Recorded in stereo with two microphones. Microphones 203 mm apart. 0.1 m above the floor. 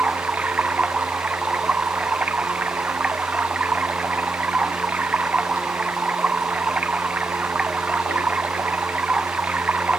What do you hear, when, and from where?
0.0 s running water: 5° right (ahead or behind)